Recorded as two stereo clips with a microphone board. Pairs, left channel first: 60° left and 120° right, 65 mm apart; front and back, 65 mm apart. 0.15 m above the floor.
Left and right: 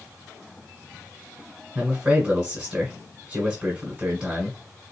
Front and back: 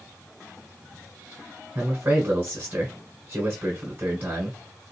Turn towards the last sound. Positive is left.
turn(degrees=-170)